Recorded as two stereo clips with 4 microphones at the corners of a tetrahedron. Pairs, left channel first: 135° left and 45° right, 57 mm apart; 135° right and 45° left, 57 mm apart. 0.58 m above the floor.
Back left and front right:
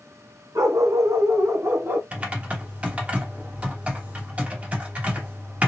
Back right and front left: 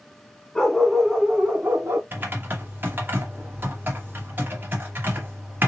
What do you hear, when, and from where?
0.6 s a dog barking: 50° right, 1.7 m; by 2.0 s 10° left, 1.5 m
2.1 s typing on a keyboard: 10° left, 1.1 m